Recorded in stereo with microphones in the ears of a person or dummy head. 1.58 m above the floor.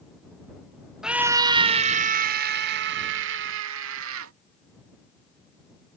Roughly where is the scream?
Centre.